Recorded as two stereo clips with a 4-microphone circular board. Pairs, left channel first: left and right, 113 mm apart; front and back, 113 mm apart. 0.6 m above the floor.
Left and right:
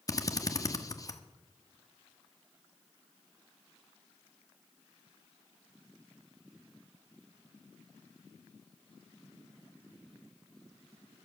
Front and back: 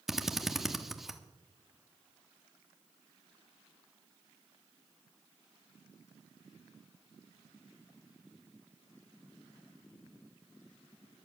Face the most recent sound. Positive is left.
turn(degrees=95)